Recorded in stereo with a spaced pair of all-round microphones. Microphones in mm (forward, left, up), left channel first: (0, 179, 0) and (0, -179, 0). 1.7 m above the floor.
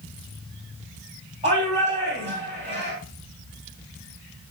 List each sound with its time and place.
1.4 s a shout: 20° right (ahead or behind), 3.5 m